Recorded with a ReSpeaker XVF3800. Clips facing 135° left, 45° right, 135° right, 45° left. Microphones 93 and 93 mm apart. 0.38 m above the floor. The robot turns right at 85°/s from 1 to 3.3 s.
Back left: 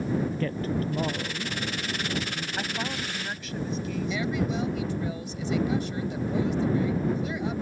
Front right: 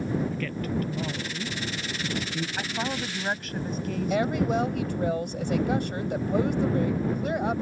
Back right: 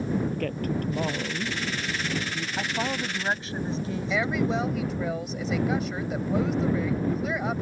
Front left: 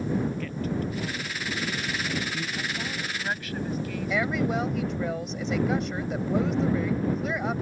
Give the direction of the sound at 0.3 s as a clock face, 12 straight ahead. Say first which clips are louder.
Back left 1 dB, back right 2 dB; 6 o'clock.